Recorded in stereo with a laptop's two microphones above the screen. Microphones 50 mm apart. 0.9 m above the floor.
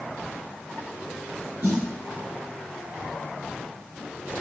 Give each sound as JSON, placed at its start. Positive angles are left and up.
{"t": 1.6, "sound": "a snare drum", "side_deg": -45, "distance_m": 4.5}